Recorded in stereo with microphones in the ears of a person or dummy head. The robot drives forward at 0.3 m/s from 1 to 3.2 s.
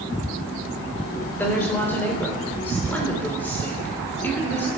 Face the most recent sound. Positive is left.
turn(degrees=10)  # may be behind; listen again after turning